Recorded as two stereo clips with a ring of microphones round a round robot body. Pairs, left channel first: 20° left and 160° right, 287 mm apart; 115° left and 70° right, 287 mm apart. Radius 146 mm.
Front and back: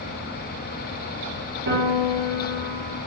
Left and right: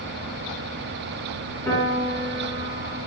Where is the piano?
170° right, 1.4 m.